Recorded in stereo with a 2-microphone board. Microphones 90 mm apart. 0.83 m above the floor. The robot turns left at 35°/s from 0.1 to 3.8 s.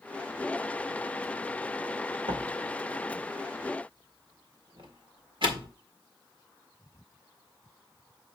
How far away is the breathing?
No breathing in this recording.